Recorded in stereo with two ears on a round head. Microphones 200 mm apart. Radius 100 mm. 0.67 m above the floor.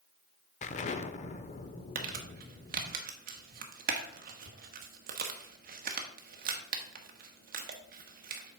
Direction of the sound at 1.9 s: 45° right (ahead or behind).